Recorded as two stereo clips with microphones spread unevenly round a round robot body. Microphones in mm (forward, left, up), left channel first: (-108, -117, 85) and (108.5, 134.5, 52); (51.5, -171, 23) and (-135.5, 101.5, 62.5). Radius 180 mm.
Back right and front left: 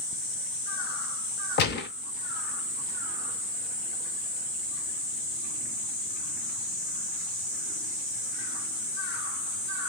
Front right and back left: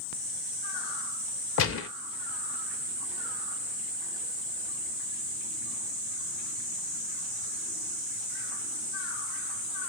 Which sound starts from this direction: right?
A gunshot, at 1.6 s.